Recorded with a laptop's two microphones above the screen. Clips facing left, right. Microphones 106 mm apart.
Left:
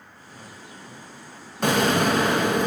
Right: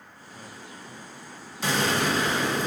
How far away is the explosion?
About 0.5 m.